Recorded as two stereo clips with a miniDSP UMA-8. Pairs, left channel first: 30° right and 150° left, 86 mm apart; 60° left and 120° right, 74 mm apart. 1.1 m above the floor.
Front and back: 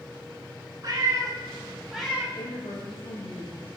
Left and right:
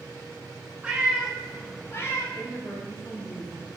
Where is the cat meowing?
170° left, 1.5 m; by 2.2 s 40° left, 1.2 m.